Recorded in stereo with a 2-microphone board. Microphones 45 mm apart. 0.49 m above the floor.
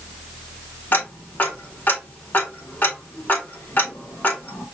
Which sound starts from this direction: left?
Ticking, at 0.9 s.